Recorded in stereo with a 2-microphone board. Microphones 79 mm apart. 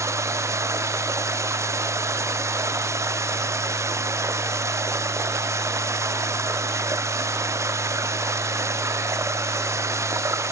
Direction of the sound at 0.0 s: 40° right (ahead or behind).